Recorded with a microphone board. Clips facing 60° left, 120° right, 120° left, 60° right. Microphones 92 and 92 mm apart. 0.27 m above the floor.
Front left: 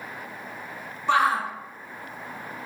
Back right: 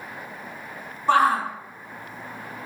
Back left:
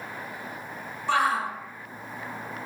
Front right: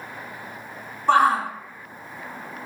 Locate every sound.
1.1 s a shout: 80° right, 2.0 m